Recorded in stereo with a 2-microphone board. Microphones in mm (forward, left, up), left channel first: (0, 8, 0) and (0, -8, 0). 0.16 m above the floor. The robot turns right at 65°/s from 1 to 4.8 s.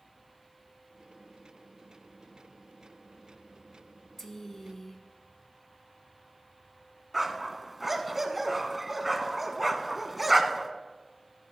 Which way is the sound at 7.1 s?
10° right (ahead or behind).